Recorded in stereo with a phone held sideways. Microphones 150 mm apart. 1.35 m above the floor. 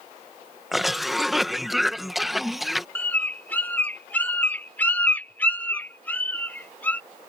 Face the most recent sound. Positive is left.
turn(degrees=10)  # may be behind; listen again after turning